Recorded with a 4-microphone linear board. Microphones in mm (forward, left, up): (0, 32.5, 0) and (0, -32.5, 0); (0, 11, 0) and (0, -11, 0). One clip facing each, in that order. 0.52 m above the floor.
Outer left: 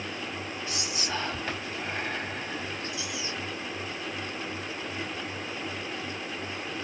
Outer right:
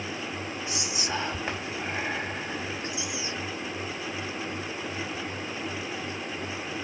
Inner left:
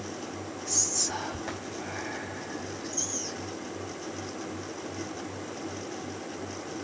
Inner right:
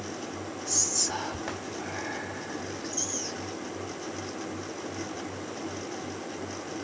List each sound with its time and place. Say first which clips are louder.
0.7 s whispering: outer right 1 dB, inner right 1 dB; 15° right (ahead or behind), 1.7 m